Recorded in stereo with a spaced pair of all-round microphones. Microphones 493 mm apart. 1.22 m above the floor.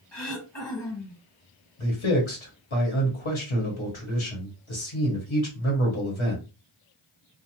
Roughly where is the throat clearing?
Left.